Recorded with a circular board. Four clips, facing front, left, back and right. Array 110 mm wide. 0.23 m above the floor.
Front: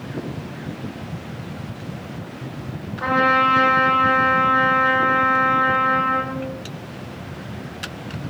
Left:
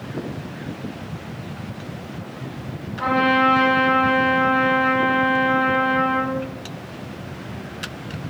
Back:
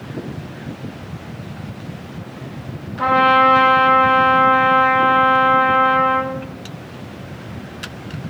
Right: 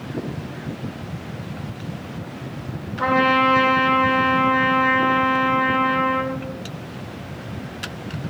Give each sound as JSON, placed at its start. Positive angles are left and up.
{"t": 3.0, "sound": "a trumpet", "azimuth_deg": -170, "distance_m": 6.0}